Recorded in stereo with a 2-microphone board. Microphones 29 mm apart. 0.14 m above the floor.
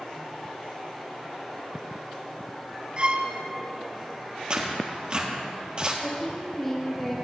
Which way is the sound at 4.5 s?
30° right (ahead or behind).